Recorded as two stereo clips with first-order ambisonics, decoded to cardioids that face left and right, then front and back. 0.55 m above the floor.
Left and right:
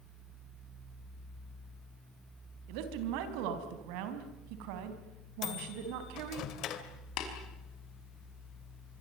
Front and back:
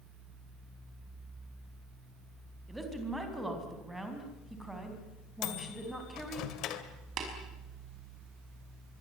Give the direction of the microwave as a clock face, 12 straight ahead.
11 o'clock.